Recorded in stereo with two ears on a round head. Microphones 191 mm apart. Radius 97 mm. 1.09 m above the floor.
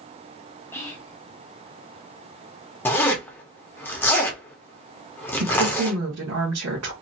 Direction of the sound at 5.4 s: 75° right (ahead or behind).